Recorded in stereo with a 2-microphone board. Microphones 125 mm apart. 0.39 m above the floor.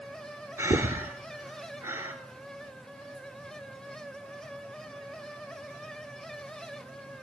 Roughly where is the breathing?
Right.